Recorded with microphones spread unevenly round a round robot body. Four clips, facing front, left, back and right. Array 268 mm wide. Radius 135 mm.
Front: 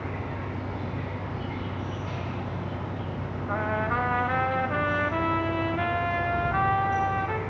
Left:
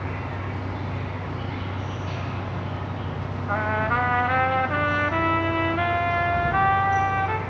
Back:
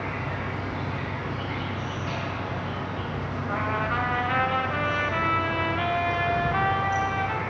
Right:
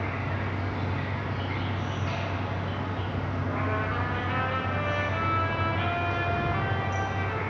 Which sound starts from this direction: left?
A trumpet, at 3.5 s.